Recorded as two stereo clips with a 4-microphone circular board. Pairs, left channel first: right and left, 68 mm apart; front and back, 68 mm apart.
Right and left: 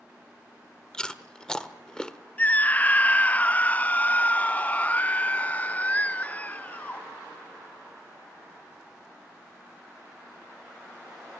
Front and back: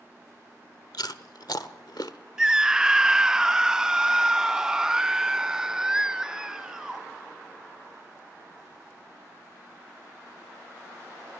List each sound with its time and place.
0.9 s chewing: 10° right, 1.1 m
2.4 s a scream: 115° right, 0.5 m